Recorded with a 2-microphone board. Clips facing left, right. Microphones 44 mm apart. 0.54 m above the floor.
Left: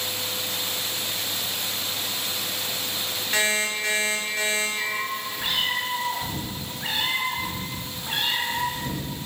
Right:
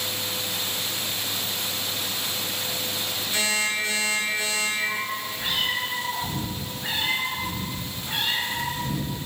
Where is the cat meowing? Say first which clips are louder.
Even; 60° left (ahead or behind), 0.8 m.